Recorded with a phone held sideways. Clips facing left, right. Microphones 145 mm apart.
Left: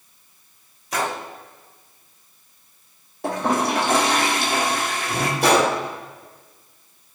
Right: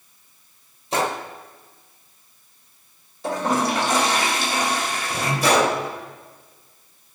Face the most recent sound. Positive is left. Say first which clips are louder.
# left 1 dB
turn(degrees=65)  # may be behind; listen again after turning